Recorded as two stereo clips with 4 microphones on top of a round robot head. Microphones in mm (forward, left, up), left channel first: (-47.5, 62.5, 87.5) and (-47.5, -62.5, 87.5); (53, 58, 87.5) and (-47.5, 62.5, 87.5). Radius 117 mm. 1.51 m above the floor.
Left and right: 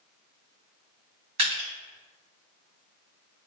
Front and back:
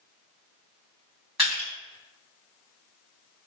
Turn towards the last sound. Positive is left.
turn(degrees=-95)